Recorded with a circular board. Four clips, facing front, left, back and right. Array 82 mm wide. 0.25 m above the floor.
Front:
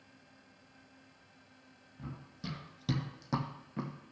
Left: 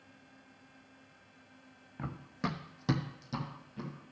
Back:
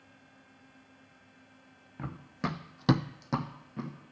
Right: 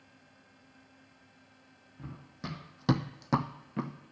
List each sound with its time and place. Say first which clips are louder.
2.0 s running footsteps: left 6 dB, back 10 dB; 140° left, 1.4 m; by 3.9 s 80° right, 1.4 m